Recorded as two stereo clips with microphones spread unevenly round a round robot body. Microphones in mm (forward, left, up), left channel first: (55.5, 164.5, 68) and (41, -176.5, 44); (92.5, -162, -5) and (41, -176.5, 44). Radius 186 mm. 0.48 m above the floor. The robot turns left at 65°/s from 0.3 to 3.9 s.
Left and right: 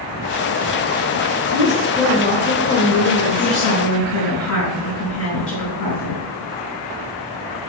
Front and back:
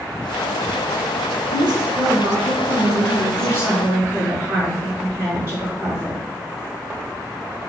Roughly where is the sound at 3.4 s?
Behind.